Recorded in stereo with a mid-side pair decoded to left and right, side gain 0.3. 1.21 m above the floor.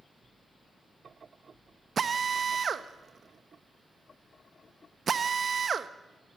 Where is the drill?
60° right, 0.9 m.